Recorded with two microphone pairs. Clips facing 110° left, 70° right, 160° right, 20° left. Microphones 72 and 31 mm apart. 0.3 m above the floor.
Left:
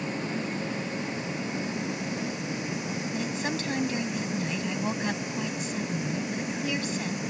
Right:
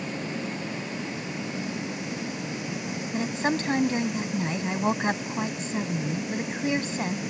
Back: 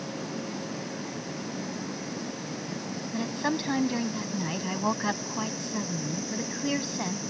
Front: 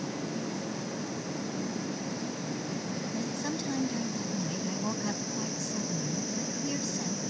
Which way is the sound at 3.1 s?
115° right.